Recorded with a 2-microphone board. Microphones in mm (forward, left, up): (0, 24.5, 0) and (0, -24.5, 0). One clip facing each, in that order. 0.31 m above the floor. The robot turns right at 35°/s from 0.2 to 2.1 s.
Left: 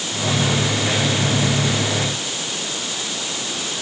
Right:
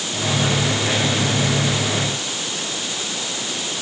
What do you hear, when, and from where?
Only background noise.